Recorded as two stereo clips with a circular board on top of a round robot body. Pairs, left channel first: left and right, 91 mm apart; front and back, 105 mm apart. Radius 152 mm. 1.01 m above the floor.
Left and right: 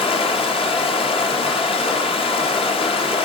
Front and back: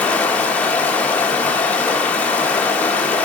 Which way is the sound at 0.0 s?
80° left.